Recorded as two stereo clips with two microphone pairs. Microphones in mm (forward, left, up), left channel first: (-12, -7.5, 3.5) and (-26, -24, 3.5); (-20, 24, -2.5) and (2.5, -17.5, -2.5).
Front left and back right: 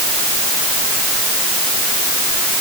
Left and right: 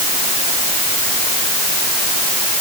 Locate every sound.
Only background noise.